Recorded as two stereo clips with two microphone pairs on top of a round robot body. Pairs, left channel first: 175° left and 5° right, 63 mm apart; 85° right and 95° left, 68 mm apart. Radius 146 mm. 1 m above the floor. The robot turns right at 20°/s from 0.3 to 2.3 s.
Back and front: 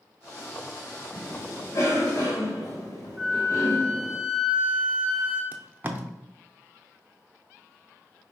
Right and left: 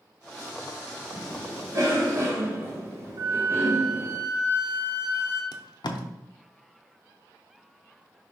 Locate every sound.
1.1 s a cough: 120° left, 1.3 m; by 4.2 s 145° left, 1.3 m
3.2 s a flute: 85° left, 1.8 m
5.5 s tape being pulled: 65° right, 0.6 m